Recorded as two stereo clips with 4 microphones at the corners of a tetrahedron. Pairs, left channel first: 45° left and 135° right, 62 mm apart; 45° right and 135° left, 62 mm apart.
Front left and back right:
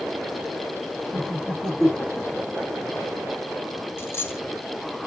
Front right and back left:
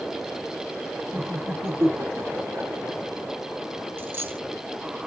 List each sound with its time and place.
1.1 s laughter: 125° left, 2.5 m; by 2.7 s 155° left, 2 m
4.0 s a dropped coin: 90° left, 0.6 m